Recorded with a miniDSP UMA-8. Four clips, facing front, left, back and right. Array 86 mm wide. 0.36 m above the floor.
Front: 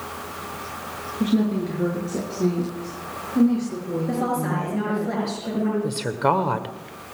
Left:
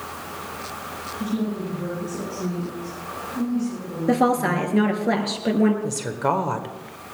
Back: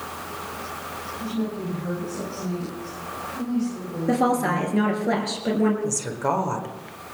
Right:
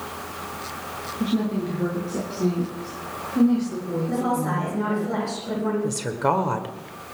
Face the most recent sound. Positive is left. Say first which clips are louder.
# right 1 dB, front 3 dB
turn(degrees=0)